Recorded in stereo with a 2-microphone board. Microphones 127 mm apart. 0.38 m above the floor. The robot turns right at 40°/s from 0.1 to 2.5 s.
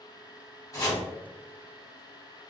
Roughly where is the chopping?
Left.